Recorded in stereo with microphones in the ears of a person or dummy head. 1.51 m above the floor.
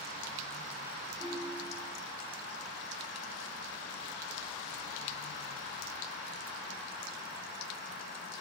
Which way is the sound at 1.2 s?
15° right (ahead or behind).